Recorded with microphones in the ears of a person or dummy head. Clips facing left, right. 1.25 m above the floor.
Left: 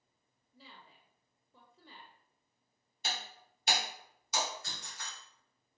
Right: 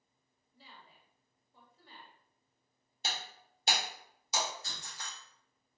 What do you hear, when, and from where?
0.5 s a woman speaking: 65° left (ahead or behind), 1.0 m
3.0 s breaking glass: 35° right (ahead or behind), 2 m